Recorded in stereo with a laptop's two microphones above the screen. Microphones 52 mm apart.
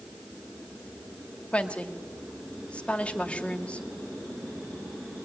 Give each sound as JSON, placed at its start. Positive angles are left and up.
{"t": 1.5, "sound": "a woman speaking", "side_deg": 25, "distance_m": 1.6}